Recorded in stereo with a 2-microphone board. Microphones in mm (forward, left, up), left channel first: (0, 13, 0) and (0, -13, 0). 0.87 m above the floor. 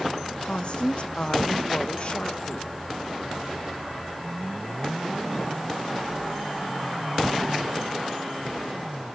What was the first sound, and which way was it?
A woman speaking, 45° left (ahead or behind).